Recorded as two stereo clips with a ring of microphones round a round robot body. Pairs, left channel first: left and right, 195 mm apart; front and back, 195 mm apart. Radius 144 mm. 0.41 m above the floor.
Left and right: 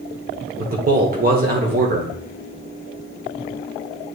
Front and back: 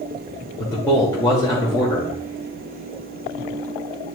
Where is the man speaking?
70° right, 1.3 m.